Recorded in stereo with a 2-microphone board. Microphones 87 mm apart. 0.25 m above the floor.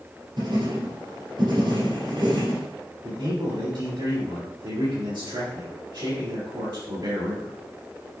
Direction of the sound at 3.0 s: 65° right (ahead or behind).